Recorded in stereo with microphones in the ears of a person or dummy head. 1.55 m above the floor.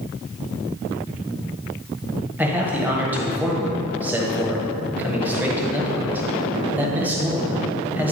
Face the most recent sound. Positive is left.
turn(degrees=-10)  # may be behind; listen again after turning